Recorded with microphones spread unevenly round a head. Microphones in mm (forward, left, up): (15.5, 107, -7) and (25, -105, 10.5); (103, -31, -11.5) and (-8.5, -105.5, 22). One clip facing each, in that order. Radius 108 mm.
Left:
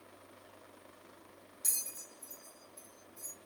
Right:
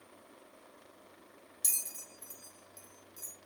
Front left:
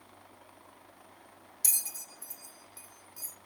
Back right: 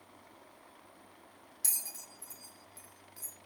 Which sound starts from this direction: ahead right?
A bell, at 1.6 s.